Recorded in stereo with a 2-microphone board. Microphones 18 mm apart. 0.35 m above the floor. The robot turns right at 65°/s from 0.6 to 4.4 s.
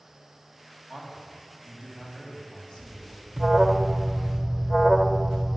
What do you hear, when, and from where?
0.9 s a man speaking: 85° right, 3 m; by 3.3 s 65° left, 3 m
3.4 s an alarm: 15° right (ahead or behind), 0.6 m; by 5.6 s 10° left (ahead or behind), 0.6 m